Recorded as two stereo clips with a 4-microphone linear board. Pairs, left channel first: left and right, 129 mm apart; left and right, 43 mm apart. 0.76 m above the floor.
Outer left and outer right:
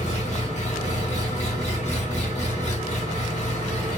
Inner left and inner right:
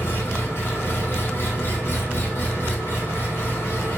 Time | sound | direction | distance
0.0 | an engine running | 55° left (ahead or behind) | 1.1 m